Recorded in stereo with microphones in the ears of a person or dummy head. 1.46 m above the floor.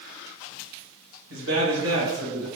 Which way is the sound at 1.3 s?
60° right (ahead or behind).